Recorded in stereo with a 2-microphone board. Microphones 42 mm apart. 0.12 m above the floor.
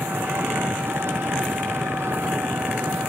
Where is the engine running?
70° right (ahead or behind).